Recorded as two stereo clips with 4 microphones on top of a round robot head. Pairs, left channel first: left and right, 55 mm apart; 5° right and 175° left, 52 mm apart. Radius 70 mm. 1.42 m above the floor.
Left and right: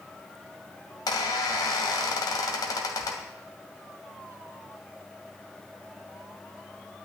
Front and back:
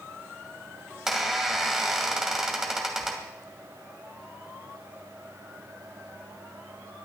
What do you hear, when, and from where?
1.1 s a squeak: 90° left, 2.0 m